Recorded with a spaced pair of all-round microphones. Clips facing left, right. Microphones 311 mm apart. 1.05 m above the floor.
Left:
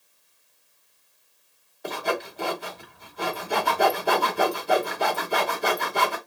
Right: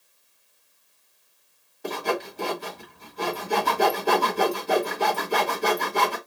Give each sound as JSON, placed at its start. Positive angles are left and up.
{"t": 1.8, "sound": "sawing", "side_deg": -40, "distance_m": 1.6}